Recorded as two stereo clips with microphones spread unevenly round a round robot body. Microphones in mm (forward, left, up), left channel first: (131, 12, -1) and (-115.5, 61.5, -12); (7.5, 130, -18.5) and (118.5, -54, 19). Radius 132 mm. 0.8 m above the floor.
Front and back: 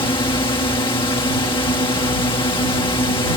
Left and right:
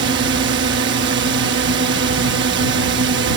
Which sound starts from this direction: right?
A drone, at 0.0 s.